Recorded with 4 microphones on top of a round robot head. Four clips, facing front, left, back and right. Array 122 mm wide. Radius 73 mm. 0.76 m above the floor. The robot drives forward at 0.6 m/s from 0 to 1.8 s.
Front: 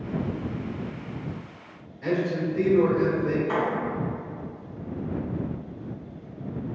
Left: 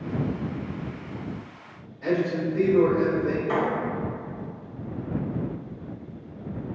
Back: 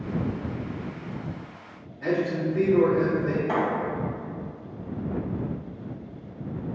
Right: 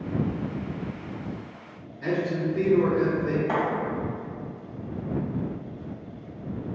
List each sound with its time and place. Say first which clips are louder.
2.0 s a man speaking: left 2 dB, even; 150° right, 1.6 m
3.5 s a thud: left 2 dB, back 1 dB; 130° right, 1.8 m